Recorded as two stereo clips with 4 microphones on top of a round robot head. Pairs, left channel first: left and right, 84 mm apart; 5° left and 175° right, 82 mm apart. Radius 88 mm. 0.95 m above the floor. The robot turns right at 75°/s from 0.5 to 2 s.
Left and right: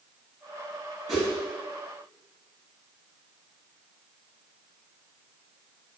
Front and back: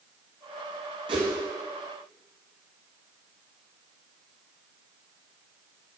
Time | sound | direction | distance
1.1 | a whoosh | straight behind | 1.3 m